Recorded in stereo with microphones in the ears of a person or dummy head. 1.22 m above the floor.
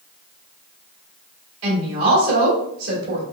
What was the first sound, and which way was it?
A woman speaking, 80° right.